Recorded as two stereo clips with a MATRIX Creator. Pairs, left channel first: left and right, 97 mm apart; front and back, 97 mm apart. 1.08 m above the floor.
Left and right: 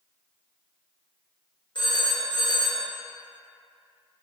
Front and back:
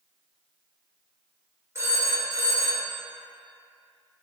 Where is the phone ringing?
120° left, 2 m.